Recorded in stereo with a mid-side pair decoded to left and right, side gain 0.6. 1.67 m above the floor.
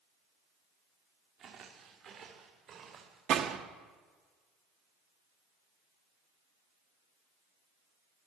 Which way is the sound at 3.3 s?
60° right.